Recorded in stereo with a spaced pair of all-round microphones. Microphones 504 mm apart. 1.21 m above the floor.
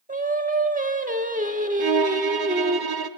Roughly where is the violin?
Right.